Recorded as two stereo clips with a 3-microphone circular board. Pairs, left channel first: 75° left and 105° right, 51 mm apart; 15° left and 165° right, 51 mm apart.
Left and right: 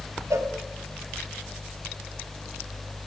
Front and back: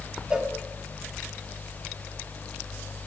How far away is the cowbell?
About 2.0 m.